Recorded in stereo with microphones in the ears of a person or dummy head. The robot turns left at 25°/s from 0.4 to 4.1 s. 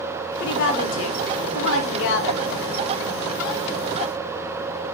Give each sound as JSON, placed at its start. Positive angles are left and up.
{"t": 0.4, "sound": "a woman speaking", "azimuth_deg": 115, "distance_m": 0.8}